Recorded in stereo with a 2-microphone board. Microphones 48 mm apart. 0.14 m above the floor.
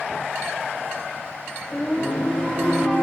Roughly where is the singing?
Left.